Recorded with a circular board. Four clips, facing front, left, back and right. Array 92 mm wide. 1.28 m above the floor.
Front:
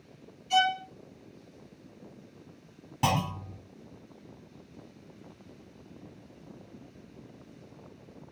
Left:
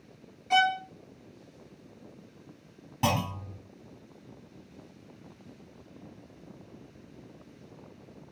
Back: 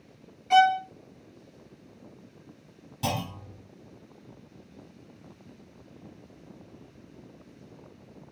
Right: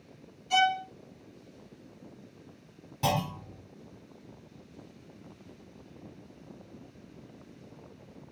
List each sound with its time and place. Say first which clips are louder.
0.5 s a violin: left 1 dB, back 7 dB; 150° left, 0.6 m
3.0 s a clunk: left 1 dB, front 3 dB; 30° left, 1.6 m